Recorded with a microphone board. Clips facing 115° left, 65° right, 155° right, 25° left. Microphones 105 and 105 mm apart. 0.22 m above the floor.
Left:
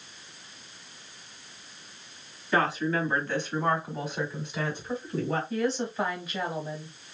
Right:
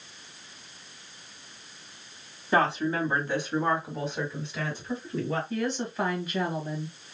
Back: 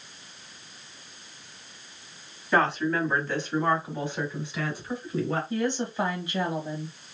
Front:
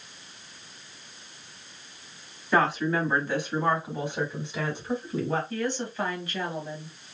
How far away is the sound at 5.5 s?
About 1.2 m.